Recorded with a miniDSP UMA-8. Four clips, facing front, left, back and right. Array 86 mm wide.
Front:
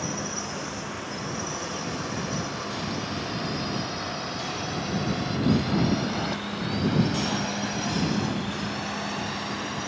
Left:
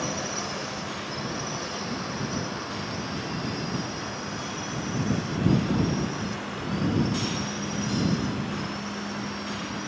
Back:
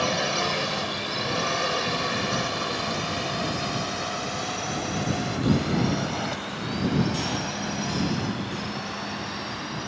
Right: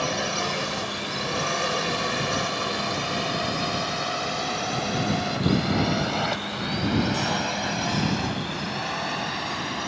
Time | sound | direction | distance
0.0 | a drone | 150° right | ?